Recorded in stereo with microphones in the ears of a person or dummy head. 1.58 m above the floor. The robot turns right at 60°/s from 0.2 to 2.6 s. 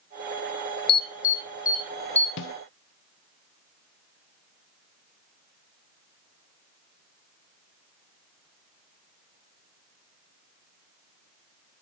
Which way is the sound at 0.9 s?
70° left (ahead or behind).